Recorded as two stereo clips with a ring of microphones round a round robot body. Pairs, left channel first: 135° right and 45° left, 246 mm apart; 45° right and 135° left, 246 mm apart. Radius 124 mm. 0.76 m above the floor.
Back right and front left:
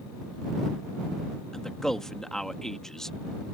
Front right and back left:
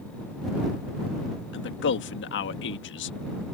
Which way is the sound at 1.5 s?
50° right.